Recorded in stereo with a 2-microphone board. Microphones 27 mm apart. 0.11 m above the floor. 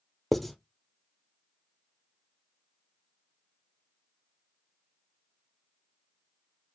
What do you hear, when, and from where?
0.3 s writing: centre (ahead or behind), 0.6 m